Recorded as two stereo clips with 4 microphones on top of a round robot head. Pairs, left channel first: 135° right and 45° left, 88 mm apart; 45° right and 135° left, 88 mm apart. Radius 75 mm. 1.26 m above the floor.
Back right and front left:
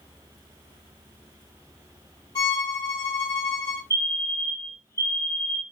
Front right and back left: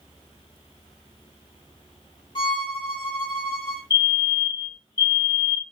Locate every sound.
2.4 s a violin: 85° right, 2.5 m
3.9 s a fire alarm: 85° right, 3 m